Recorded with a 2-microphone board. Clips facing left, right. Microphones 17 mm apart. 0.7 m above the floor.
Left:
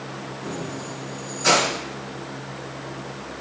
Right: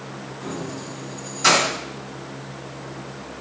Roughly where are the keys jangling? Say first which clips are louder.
Right 1 dB; right.